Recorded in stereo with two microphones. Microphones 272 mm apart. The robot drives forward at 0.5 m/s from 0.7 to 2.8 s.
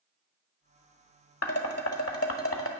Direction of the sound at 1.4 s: 65° left (ahead or behind).